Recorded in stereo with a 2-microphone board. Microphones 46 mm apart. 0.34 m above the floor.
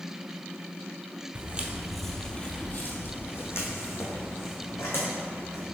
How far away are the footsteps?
About 0.6 m.